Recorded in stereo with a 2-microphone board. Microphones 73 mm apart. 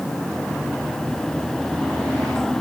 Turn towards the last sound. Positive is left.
No sound to turn to.